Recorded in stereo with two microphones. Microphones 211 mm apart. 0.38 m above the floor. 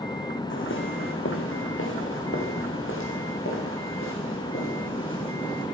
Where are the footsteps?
70° left (ahead or behind), 1.2 m; by 5.7 s 75° left (ahead or behind), 4.5 m.